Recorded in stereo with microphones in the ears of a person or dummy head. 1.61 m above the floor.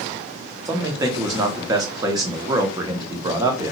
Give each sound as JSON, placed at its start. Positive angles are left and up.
{"t": 0.7, "sound": "a man speaking", "side_deg": -20, "distance_m": 0.7}